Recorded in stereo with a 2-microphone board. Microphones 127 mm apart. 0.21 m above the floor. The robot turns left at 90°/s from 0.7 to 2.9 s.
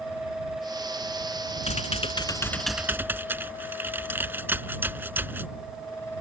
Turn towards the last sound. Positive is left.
turn(degrees=-20)